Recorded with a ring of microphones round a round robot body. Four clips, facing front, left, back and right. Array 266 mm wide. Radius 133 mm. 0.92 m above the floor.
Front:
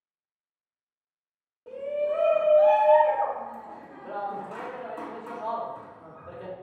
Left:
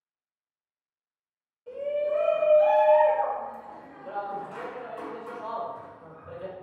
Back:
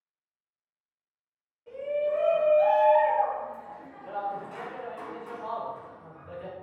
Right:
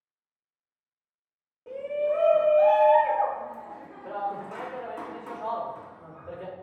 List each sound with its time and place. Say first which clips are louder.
1.7 s a shout: even, even; 40° right, 1.7 m